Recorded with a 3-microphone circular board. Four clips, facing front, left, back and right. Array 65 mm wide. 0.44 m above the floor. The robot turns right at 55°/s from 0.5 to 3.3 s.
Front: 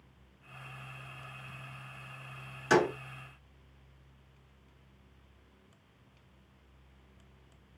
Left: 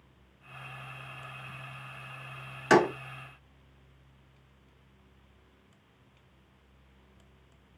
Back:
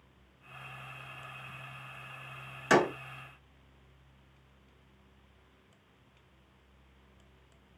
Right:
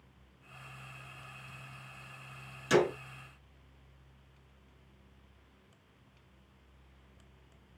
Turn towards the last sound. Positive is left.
turn(degrees=145)